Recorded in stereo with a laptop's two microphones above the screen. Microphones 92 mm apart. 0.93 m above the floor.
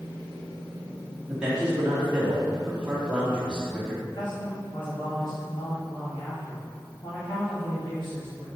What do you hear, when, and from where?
1.3 s a man speaking: 10° right (ahead or behind), 1.9 m
4.0 s a man speaking: 60° left (ahead or behind), 1.7 m